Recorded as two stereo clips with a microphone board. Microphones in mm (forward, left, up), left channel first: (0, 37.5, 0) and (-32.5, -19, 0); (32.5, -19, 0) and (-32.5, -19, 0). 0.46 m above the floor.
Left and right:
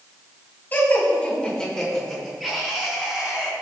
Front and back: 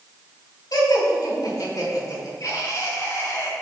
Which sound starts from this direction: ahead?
Laughter, at 0.7 s.